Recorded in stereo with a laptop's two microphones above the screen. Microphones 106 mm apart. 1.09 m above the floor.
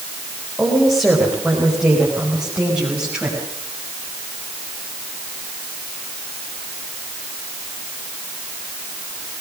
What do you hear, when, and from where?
0.6 s a woman speaking: 5° right (ahead or behind), 4.5 m; by 3.4 s 15° right (ahead or behind), 6 m